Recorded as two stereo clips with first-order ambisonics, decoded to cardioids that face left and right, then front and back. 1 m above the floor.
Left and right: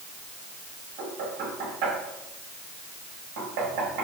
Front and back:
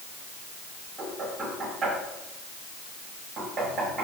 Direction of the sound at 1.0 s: 110° right.